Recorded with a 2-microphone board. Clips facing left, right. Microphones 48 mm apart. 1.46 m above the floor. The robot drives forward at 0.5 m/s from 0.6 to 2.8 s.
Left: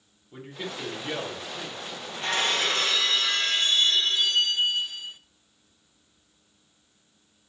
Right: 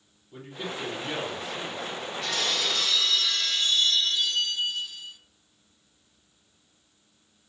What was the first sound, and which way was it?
A man speaking, 15° left (ahead or behind).